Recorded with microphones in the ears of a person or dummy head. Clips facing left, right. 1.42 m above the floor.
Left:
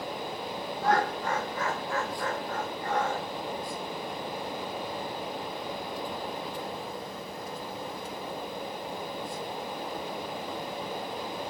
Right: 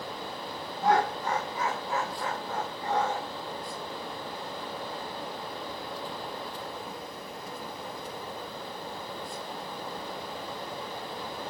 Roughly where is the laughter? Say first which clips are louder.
Right 2 dB; centre.